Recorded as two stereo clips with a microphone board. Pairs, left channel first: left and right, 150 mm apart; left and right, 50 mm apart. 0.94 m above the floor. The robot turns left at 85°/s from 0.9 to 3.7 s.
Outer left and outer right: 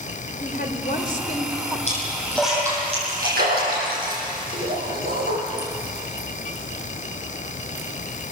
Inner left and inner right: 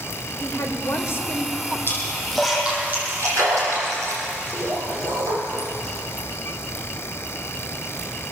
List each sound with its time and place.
0.4 s a woman speaking: 75° left, 3.5 m; by 1.8 s 5° left, 3.5 m
1.9 s a splash: 50° left (ahead or behind), 9.5 m; by 6.3 s 70° right (ahead or behind), 9.5 m